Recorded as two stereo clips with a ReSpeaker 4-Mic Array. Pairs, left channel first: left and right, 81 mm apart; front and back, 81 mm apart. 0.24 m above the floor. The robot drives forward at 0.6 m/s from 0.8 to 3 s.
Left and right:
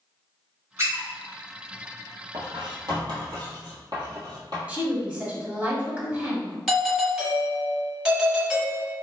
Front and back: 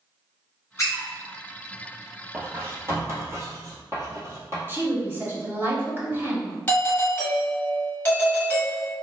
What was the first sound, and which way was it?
A squeak, 45° right.